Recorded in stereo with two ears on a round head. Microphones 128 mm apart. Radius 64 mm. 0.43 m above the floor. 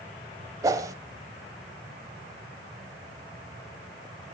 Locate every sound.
0.6 s a whoosh: 20° right (ahead or behind), 1.0 m